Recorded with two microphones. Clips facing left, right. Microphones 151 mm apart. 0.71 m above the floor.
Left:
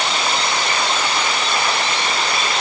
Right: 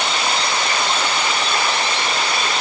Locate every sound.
Only background noise.